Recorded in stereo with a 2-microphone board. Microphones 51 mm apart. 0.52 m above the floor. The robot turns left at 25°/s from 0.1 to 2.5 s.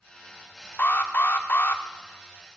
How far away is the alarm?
About 0.7 m.